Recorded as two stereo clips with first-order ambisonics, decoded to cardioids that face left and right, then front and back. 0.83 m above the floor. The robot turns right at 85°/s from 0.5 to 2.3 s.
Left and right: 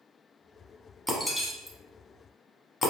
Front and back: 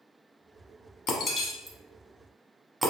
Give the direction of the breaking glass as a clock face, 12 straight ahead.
12 o'clock.